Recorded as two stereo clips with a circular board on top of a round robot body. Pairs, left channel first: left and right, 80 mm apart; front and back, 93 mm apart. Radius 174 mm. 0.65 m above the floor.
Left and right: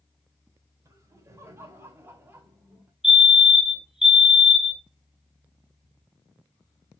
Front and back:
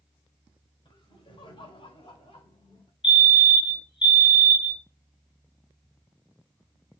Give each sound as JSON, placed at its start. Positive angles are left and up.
{"t": 0.8, "sound": "laughter", "azimuth_deg": -35, "distance_m": 4.0}
{"t": 3.0, "sound": "a fire alarm", "azimuth_deg": -5, "distance_m": 3.0}